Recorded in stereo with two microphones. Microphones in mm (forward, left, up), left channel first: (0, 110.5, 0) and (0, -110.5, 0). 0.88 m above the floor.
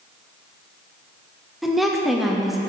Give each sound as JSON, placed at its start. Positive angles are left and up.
{"t": 1.6, "sound": "a woman speaking", "side_deg": 0, "distance_m": 0.7}